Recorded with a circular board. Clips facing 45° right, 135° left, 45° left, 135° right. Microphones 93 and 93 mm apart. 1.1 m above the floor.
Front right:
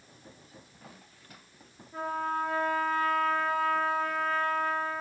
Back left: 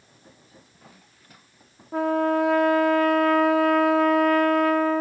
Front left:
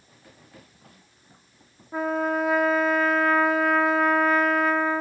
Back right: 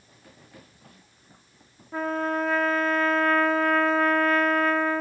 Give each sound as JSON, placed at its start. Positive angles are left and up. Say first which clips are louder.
{"t": 1.9, "sound": "a trumpet", "louder": "back left 10 dB, front left 2 dB", "azimuth_deg": 125, "distance_m": 1.0}